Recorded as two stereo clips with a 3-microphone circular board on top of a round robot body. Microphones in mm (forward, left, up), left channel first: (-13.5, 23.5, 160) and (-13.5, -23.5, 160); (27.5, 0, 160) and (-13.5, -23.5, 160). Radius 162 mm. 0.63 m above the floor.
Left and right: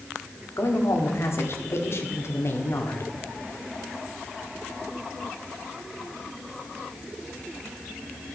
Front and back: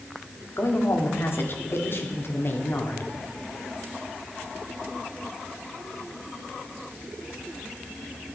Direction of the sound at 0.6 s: 65° left.